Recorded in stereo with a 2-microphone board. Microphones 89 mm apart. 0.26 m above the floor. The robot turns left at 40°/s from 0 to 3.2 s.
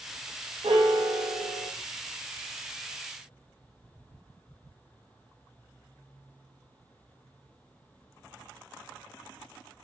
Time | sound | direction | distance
0.6 | a piano | 75° right | 1.8 m